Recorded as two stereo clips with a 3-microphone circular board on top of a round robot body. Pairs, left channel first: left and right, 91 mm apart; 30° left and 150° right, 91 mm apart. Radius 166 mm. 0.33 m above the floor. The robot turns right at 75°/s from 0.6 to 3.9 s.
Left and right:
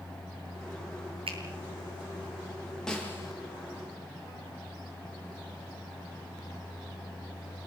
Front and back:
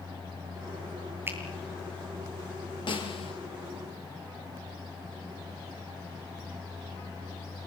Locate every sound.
1.3 s a finger snap: 85° right, 7 m; by 1.4 s 75° right, 7 m
2.9 s a snare drum: 5° left, 5.5 m; by 3.3 s 40° left, 5.5 m